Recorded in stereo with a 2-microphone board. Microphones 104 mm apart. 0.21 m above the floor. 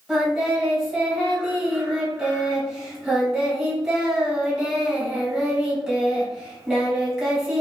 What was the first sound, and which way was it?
Singing, 5° right (ahead or behind).